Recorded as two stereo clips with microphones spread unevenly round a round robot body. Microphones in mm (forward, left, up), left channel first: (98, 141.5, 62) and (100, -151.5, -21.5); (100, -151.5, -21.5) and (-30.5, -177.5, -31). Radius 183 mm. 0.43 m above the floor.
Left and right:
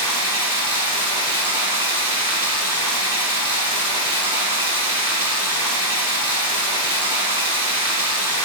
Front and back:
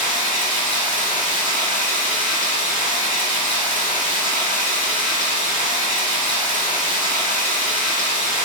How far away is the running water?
About 1.4 m.